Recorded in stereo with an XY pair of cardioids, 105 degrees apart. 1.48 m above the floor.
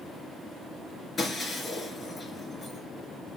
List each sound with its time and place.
1.2 s breaking glass: 35° left, 4.5 m